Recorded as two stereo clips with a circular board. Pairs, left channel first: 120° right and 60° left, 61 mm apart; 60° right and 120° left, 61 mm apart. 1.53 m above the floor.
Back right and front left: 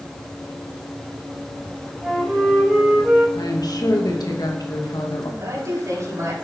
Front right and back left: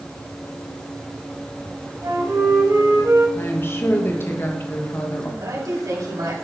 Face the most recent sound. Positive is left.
turn(degrees=100)